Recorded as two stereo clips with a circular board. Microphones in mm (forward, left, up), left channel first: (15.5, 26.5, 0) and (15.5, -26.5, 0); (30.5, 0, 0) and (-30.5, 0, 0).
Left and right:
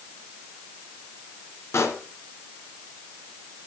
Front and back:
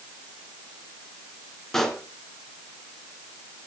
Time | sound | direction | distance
1.7 | a pop | 80° left | 2 m